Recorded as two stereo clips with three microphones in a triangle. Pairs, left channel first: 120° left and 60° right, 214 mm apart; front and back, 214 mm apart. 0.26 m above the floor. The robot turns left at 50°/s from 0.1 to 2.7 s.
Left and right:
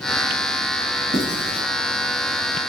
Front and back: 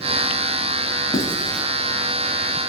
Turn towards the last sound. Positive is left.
turn(degrees=-145)